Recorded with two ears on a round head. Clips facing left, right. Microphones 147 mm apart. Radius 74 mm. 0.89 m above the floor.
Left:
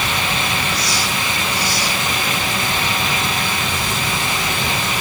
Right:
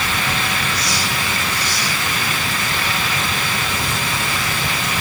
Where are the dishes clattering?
No dishes clattering in this recording.